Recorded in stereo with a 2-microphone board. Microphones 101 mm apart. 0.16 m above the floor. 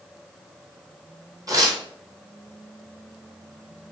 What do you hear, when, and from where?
1.5 s tearing paper: 35° right (ahead or behind), 0.9 m